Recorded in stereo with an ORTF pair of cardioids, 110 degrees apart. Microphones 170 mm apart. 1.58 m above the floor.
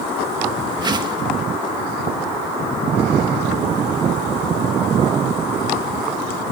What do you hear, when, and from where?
0.8 s a whoosh: 25° right, 1.6 m